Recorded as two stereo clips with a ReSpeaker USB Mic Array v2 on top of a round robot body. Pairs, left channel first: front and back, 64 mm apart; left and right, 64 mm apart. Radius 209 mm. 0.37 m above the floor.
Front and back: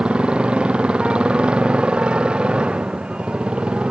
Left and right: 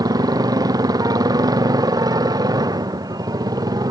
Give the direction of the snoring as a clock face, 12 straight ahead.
I don't hear snoring.